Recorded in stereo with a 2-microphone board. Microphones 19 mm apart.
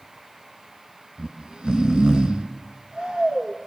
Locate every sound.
1.2 s snoring: 55° right (ahead or behind), 1.8 m